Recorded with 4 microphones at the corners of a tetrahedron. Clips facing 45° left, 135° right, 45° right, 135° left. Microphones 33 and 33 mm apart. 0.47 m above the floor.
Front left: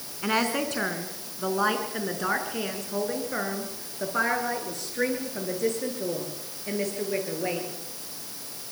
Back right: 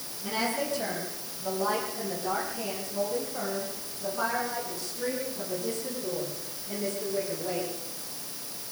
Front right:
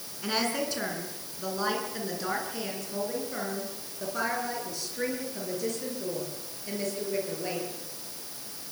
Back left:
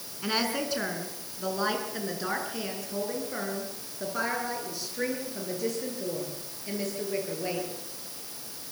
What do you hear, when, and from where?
0.2 s a woman speaking: 55° left, 5 m; by 7.8 s 50° left, 9 m